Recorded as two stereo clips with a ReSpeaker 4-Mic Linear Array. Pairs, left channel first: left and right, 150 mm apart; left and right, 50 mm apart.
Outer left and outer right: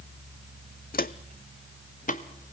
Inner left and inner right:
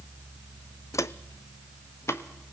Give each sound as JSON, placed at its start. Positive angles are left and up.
{"t": 0.9, "sound": "footsteps", "side_deg": 80, "distance_m": 0.6}